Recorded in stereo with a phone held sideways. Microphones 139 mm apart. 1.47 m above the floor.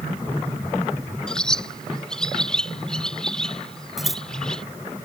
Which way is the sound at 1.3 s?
5° left (ahead or behind).